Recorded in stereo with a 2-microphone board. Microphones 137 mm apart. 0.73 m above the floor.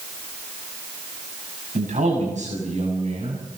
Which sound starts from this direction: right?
A man speaking, at 1.8 s.